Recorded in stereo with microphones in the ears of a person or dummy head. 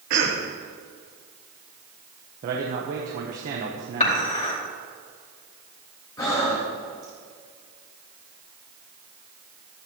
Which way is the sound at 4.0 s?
45° left (ahead or behind).